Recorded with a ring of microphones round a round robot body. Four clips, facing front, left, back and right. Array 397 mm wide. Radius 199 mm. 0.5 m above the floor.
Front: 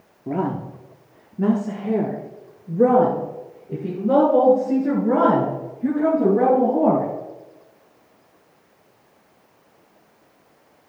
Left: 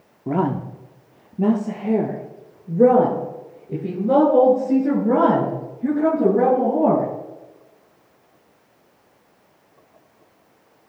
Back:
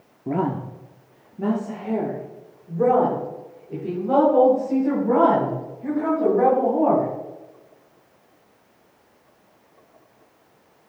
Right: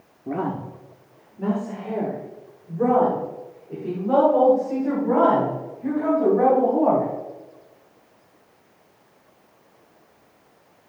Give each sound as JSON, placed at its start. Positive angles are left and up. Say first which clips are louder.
{"t": 0.3, "sound": "a woman speaking", "louder": "left 5 dB, even", "azimuth_deg": 95, "distance_m": 0.8}